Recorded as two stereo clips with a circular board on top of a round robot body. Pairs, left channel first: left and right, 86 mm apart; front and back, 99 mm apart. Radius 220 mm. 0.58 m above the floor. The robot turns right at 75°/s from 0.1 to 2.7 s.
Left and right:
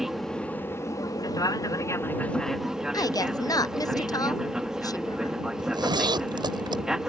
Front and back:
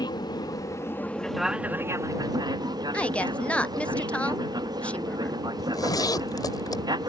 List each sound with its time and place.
0.0 s an aircraft: 5° right; by 7.1 s 170° right
2.9 s a woman speaking: 75° left
5.6 s a zipper: 55° right